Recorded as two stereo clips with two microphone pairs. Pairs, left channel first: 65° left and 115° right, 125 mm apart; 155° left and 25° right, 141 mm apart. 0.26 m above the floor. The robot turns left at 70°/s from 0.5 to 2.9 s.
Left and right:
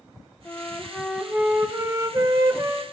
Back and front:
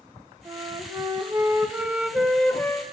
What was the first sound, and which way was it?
A flute, 10° left.